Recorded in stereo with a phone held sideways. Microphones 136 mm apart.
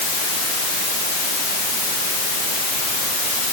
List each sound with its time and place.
Only background noise.